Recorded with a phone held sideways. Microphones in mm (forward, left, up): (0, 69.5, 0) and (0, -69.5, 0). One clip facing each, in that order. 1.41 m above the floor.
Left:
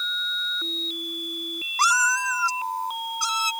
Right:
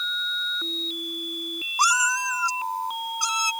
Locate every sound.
1.8 s a cat meowing: 15° right (ahead or behind)